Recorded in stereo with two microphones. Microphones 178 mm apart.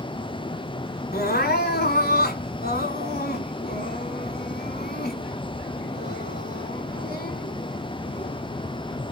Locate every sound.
1.1 s crying: 60° left (ahead or behind), 1.0 m